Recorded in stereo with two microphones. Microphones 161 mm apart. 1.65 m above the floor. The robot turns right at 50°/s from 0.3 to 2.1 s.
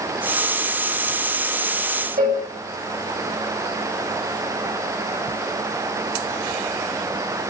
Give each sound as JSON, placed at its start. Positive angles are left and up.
{"t": 2.2, "sound": "a cowbell", "side_deg": -65, "distance_m": 8.5}